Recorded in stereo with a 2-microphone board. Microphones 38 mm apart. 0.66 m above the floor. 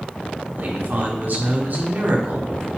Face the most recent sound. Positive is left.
turn(degrees=-50)  # may be behind; listen again after turning